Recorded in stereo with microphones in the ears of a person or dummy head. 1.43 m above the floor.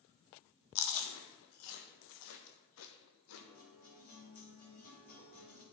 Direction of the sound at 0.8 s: 80° left.